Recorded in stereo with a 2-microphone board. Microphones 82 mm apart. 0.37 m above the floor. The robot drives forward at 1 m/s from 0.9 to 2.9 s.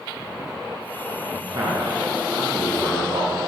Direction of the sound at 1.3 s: 65° right (ahead or behind).